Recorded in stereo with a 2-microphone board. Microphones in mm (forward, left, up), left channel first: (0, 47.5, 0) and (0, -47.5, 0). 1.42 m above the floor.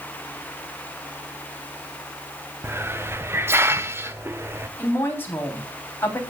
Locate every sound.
2.6 s a hiss: 25° right (ahead or behind), 0.8 m
4.8 s a woman speaking: 25° left (ahead or behind), 3.5 m